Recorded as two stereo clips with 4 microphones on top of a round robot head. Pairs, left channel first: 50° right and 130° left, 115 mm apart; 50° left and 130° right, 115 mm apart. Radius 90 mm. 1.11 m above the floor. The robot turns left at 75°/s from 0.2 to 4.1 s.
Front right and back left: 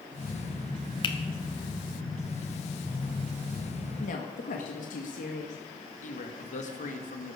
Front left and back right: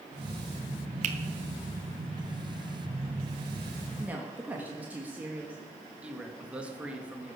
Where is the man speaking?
50° right, 2.0 m.